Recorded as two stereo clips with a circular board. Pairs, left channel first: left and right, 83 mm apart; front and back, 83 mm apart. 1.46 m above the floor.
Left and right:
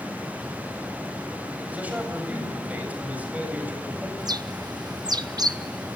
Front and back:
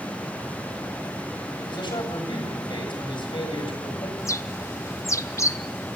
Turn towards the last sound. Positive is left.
turn(degrees=-55)